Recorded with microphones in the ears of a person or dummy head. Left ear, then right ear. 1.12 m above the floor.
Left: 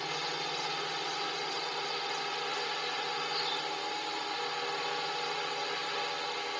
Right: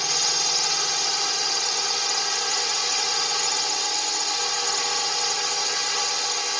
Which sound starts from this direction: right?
A drone, at 0.0 s.